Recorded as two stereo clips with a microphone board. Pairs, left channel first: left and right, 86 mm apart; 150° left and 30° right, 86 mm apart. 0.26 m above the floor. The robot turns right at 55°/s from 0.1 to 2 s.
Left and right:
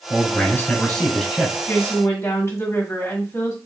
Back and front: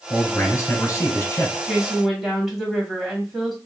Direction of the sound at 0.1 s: 115° left.